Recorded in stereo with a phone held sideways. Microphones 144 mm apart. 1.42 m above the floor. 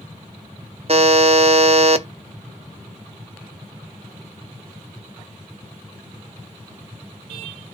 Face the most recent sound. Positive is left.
turn(degrees=-45)  # may be behind; listen again after turning